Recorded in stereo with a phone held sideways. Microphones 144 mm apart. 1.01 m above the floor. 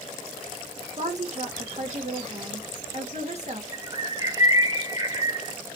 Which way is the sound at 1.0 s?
50° right (ahead or behind).